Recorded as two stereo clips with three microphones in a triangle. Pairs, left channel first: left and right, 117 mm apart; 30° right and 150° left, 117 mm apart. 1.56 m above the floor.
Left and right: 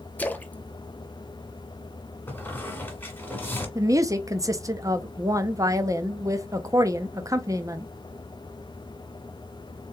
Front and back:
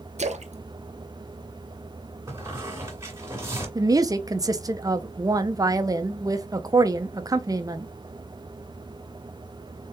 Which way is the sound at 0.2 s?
165° left.